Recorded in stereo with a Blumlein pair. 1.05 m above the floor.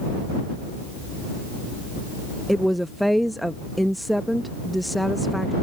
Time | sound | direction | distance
2.5 | a woman speaking | straight ahead | ?